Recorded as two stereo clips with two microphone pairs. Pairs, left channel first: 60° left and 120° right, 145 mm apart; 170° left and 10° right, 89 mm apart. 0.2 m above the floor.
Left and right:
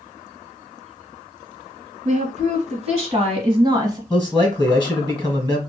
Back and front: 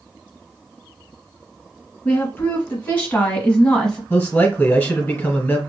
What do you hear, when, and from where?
2.0 s a woman speaking: 125° right, 1.8 m; by 4.0 s 120° right, 1.0 m
4.1 s a man speaking: 120° left, 1.2 m